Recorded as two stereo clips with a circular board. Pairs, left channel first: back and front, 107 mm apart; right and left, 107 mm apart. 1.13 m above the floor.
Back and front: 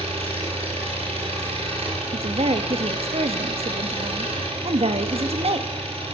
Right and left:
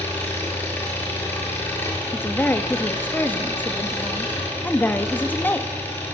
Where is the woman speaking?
20° right, 1.9 m.